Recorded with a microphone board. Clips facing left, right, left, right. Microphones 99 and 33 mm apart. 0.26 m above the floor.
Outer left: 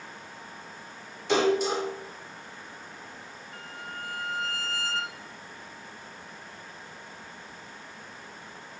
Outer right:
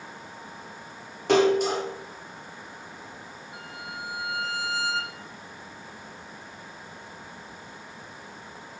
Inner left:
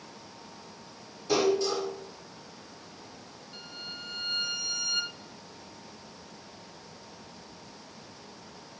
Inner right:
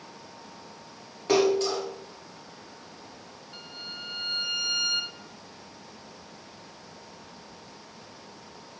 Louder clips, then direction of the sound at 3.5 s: Outer right 1 dB, inner right 1 dB; 15° right (ahead or behind).